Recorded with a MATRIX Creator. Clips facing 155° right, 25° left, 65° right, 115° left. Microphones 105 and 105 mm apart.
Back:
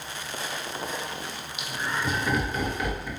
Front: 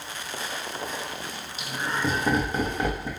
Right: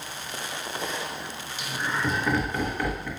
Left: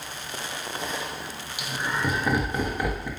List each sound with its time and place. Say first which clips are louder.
1.6 s laughter: front 2 dB, left 1 dB; 45° left, 0.9 m